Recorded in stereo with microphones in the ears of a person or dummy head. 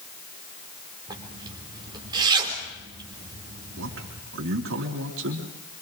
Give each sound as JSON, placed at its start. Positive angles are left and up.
{"t": 1.1, "sound": "a zipper", "side_deg": -20, "distance_m": 3.0}
{"t": 3.8, "sound": "a man speaking", "side_deg": -70, "distance_m": 3.0}